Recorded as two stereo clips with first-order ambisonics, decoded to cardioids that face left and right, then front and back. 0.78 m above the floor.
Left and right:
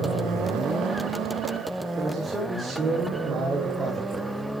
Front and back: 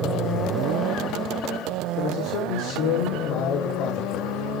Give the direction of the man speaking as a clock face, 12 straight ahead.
1 o'clock.